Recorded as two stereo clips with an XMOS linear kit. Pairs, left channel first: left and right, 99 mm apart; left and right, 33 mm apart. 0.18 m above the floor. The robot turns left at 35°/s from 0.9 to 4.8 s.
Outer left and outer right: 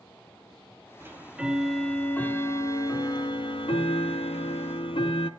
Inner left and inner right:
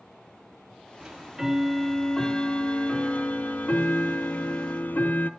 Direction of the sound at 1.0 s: 155° right.